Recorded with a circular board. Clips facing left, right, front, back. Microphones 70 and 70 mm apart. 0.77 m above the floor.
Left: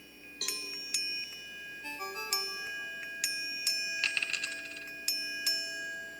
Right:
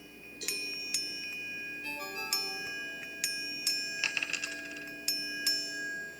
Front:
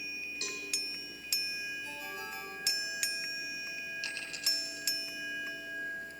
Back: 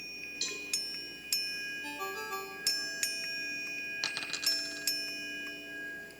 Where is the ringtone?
155° left, 4.5 m.